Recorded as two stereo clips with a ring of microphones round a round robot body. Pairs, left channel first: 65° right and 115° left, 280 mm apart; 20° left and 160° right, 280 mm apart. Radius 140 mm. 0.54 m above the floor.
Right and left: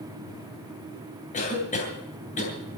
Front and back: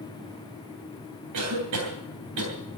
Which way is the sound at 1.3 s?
130° right.